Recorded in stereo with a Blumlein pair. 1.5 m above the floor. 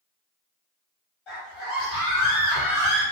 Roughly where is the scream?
Ahead left.